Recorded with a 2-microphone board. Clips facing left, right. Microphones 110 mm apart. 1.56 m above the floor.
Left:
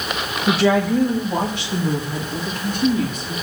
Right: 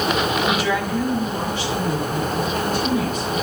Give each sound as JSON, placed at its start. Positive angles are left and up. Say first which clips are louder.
{"t": 0.5, "sound": "a woman speaking", "louder": "left 4 dB", "side_deg": 80, "distance_m": 1.7}